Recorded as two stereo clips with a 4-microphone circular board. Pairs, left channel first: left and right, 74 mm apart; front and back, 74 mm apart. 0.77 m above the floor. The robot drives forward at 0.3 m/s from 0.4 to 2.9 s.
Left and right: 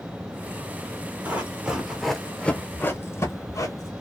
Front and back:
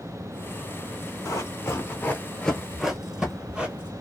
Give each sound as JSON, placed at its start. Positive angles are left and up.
{"t": 1.2, "sound": "running footsteps", "azimuth_deg": -30, "distance_m": 1.1}